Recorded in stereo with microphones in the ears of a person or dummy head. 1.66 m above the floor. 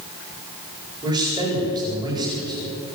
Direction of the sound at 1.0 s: 25° right (ahead or behind).